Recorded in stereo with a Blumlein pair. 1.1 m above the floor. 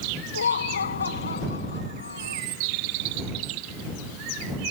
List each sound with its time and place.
0.3 s laughter: 70° left; by 2.4 s 75° left